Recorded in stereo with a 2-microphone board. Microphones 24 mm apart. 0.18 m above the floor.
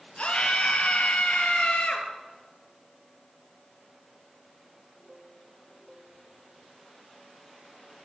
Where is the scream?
45° left (ahead or behind), 3.5 m; by 2.1 s 70° left (ahead or behind), 3 m.